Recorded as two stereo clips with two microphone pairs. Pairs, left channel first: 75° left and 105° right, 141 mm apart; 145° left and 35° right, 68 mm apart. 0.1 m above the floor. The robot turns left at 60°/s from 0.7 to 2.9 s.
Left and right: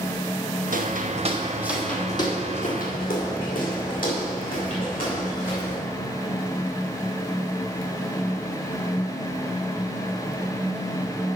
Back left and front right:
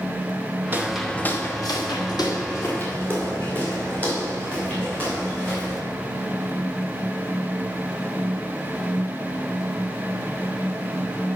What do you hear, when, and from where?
0.7 s footsteps: 95° right, 1.5 m; by 5.8 s 70° left, 7.5 m